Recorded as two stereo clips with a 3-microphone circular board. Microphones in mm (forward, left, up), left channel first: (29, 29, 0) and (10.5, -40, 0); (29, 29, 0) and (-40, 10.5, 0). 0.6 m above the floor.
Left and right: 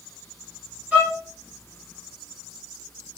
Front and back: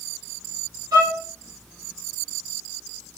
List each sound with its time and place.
0.9 s a violin: 175° right, 2.5 m